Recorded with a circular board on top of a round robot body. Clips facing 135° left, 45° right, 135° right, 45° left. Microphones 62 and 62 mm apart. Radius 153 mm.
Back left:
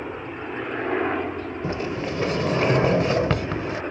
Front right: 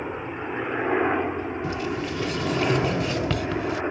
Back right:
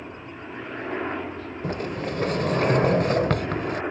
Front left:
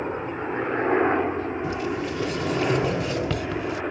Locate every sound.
0.0 s a helicopter: 30° left; by 3.9 s 70° right
1.6 s a sliding door: 170° right